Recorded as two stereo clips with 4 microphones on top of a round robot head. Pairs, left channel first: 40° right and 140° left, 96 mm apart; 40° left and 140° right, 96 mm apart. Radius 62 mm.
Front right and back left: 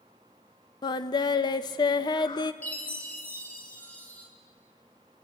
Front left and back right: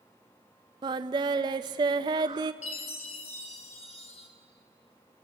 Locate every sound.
0.8 s singing: 90° right, 0.6 m
2.6 s a chime: 35° left, 2 m